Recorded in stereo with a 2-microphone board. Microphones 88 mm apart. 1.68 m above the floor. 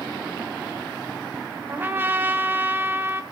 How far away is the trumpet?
About 1.2 m.